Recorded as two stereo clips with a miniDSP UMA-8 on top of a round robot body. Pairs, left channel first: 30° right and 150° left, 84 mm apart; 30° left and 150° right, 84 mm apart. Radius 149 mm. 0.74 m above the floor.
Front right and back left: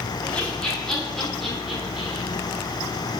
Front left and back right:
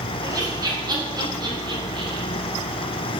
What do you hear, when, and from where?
0.2 s laughter: 105° right, 3.5 m; by 2.3 s 130° right, 3.5 m